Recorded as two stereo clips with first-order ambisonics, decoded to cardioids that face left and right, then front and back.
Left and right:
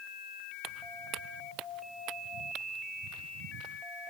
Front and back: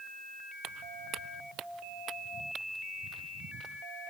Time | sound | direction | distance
0.6 | footsteps | 135° right | ?